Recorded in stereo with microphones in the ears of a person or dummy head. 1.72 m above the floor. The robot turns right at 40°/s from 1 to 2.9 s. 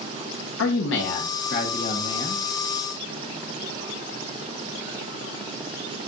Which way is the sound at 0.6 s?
105° left.